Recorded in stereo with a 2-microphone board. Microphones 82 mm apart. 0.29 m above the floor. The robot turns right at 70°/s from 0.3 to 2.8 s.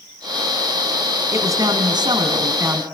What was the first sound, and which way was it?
A man speaking, 140° right.